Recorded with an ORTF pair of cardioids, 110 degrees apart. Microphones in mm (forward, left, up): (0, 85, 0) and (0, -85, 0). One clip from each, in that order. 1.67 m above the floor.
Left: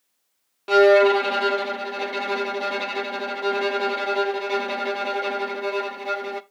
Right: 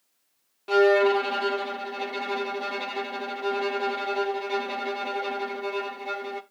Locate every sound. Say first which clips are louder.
0.7 s a violin: left 5 dB; 30° left, 0.9 m